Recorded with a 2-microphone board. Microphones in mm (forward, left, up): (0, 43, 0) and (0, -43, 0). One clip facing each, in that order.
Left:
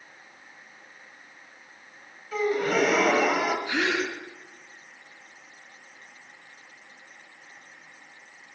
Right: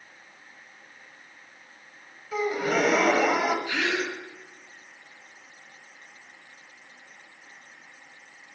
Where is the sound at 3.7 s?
20° left (ahead or behind), 2 m.